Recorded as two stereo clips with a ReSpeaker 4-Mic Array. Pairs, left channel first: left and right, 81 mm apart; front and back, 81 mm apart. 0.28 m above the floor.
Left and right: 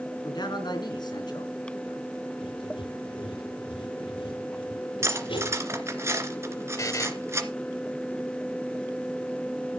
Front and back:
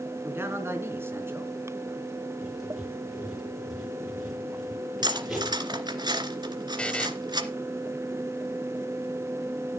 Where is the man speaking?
120° left, 3.5 m.